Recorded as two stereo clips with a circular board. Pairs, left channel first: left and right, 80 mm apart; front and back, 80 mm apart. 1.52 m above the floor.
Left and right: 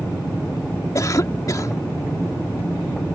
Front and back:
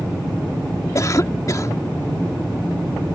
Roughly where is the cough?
Ahead left.